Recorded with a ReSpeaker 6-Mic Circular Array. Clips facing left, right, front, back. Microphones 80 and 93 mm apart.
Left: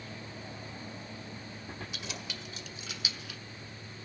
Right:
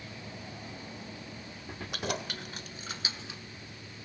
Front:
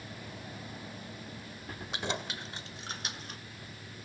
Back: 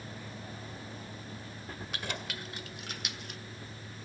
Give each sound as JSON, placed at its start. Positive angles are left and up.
{"t": 1.9, "sound": "keys jangling", "azimuth_deg": -65, "distance_m": 1.6}